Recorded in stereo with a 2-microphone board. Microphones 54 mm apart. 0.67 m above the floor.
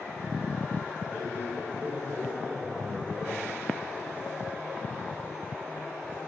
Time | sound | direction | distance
1.1 | a man speaking | 35° right (ahead or behind) | 5 m